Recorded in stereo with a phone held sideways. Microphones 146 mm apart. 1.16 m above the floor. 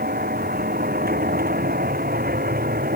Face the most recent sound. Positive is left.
turn(degrees=-80)